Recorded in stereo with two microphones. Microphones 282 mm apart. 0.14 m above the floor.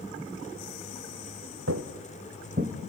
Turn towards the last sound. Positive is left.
turn(degrees=-30)  # may be behind; listen again after turning